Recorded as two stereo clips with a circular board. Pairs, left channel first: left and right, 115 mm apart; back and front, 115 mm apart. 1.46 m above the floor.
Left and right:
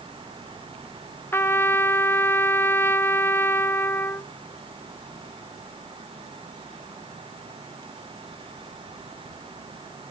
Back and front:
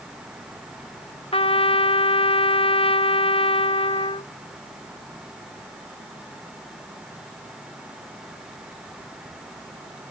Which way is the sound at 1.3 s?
155° left.